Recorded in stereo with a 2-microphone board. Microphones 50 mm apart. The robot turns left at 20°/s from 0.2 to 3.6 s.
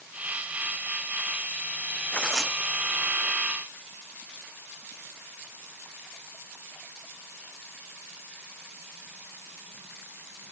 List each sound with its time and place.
2.1 s tearing paper: 15° left (ahead or behind); by 3.4 s 10° right (ahead or behind)